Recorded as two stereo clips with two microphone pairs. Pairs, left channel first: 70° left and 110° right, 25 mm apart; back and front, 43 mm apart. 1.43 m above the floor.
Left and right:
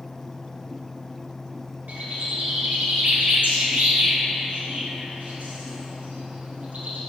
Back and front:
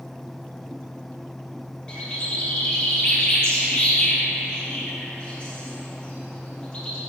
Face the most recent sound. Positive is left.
turn(degrees=-110)